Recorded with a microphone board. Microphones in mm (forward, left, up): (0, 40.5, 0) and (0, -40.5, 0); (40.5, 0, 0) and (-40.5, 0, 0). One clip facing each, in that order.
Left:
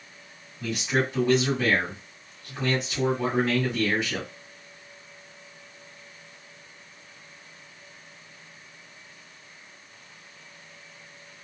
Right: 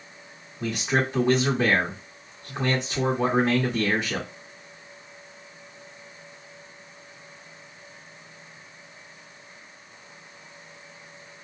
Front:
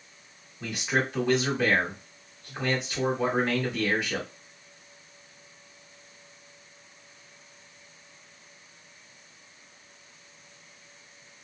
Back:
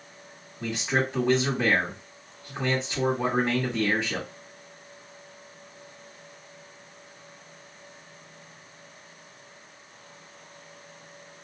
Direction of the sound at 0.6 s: 130° right.